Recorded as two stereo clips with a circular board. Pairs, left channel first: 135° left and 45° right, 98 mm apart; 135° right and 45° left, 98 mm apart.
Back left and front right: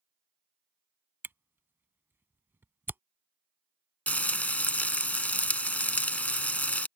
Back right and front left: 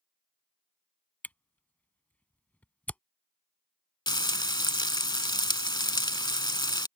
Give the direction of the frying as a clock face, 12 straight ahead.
5 o'clock.